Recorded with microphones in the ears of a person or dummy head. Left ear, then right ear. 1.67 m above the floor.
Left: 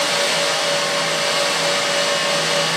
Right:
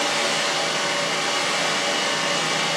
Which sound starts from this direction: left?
A fan, at 0.0 s.